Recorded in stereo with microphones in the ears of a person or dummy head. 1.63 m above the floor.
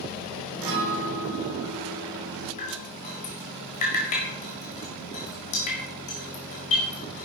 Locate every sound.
0.6 s a guitar: 70° right (ahead or behind), 3.5 m
2.6 s dripping: 25° left (ahead or behind), 1.7 m